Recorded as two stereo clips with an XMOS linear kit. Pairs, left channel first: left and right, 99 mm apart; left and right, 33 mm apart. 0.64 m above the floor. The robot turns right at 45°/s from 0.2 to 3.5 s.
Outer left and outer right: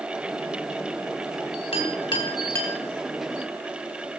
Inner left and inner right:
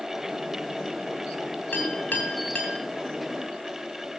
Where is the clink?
65° left (ahead or behind), 4.5 m; by 2.8 s 15° left (ahead or behind), 4.5 m.